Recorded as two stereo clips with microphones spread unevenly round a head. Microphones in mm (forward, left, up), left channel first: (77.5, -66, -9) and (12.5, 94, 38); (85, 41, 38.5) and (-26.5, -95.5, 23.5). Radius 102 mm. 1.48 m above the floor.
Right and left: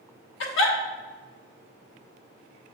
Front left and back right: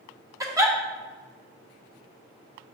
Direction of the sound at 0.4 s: 55° right.